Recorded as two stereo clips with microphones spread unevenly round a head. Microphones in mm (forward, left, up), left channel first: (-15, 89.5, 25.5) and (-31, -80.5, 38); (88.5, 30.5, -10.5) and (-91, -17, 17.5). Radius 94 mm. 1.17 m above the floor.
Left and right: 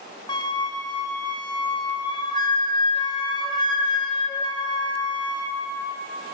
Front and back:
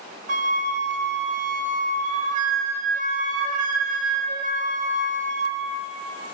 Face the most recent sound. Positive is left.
turn(degrees=150)